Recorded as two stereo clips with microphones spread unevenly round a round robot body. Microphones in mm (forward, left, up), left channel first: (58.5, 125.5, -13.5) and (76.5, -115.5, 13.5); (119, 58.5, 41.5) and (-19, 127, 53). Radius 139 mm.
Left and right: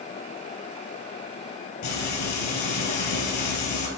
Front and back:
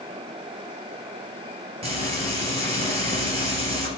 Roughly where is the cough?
No cough in this recording.